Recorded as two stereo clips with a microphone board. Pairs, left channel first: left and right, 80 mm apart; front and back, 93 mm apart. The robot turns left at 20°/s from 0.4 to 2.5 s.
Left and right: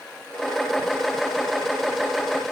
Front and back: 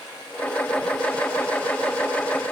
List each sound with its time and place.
Only background noise.